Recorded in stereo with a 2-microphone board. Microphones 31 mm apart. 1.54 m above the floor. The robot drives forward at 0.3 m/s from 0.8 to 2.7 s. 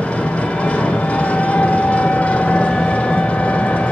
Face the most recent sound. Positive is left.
turn(degrees=45)  # may be behind; listen again after turning